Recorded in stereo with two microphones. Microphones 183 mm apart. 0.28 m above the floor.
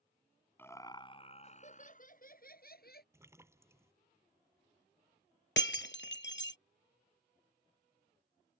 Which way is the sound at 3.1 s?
15° right (ahead or behind).